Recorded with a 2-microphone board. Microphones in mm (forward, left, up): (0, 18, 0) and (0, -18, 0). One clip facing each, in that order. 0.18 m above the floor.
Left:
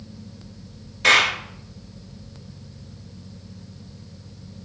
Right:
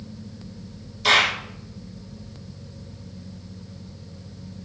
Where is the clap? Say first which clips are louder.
Left 2 dB; 60° left (ahead or behind), 1.9 m.